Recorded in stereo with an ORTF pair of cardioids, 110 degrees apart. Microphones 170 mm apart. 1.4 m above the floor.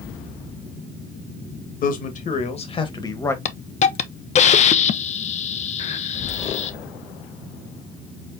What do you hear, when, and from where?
1.8 s a man speaking: 55° left, 1.7 m; by 3.4 s 15° left, 1.3 m
3.5 s a hiss: 40° left, 0.6 m